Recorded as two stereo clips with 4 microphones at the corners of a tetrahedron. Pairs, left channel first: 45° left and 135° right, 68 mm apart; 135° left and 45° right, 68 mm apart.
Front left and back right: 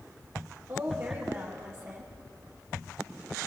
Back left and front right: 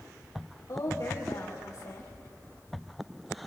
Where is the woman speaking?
170° left, 7 m.